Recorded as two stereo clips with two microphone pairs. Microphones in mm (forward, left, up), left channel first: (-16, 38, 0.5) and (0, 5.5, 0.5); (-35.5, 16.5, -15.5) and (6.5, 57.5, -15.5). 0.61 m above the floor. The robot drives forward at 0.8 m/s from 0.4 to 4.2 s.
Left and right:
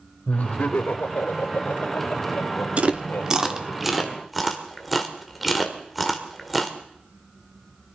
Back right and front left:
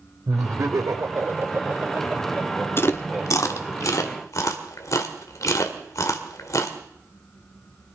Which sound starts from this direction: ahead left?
Laughter, at 0.3 s.